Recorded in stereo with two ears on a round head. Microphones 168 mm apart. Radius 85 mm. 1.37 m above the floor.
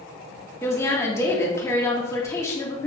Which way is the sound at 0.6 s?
15° left (ahead or behind).